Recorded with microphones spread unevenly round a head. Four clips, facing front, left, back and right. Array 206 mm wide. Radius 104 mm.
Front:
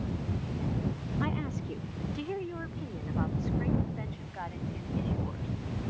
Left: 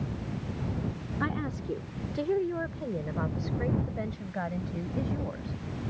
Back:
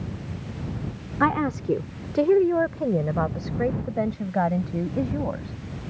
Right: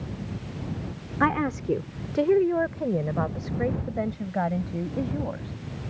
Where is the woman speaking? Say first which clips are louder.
Right 9 dB, back 13 dB; 140° right; by 5.6 s 160° right.